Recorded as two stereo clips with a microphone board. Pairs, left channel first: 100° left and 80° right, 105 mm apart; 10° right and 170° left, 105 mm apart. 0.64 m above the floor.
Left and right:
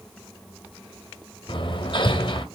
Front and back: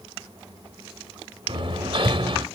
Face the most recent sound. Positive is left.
turn(degrees=135)